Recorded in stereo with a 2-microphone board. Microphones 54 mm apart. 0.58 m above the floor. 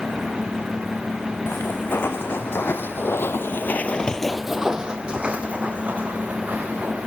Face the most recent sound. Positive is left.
turn(degrees=-30)  # may be behind; listen again after turning